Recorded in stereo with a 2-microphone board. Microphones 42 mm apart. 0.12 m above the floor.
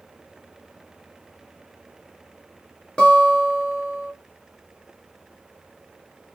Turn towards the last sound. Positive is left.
turn(degrees=20)  # may be behind; listen again after turning